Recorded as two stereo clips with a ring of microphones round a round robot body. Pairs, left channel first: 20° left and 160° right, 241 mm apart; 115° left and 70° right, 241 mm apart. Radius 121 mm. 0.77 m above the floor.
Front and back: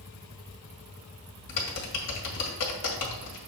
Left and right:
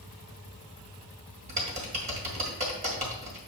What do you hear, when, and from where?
1.5 s typing on a keyboard: 5° right, 2 m